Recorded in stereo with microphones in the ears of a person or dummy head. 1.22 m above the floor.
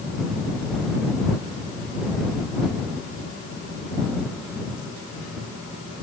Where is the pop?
I don't hear a pop.